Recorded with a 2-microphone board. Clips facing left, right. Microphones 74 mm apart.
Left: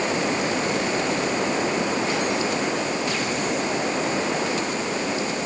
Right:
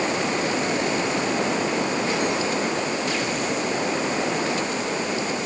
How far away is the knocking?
No knocking in this recording.